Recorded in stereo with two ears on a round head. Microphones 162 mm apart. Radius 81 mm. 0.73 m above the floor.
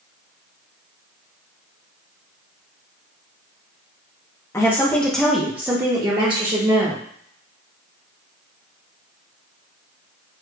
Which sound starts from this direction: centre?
A woman speaking, at 4.5 s.